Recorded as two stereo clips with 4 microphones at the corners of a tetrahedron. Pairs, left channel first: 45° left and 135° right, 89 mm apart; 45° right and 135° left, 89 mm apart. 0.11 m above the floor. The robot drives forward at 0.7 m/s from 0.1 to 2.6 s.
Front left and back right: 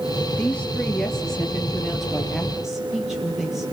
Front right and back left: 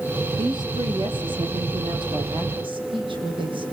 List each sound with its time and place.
0.4 s a woman speaking: 120° left, 3.5 m; by 3.6 s 140° left, 4.5 m